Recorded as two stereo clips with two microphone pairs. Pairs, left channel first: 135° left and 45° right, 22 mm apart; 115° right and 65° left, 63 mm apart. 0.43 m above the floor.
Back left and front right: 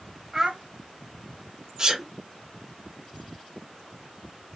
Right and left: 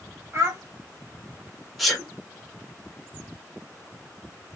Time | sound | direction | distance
0.3 | a child speaking | 25° left | 1.7 m
1.8 | a sneeze | 30° right | 1.4 m